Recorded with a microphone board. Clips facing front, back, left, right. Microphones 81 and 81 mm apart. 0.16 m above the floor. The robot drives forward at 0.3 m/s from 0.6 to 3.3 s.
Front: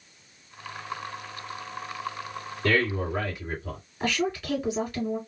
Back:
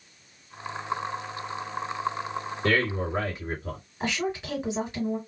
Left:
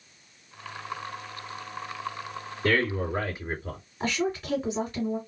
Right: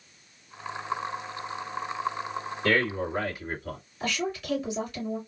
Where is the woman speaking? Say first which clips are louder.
Front 2 dB, left 3 dB; 125° left, 2 m.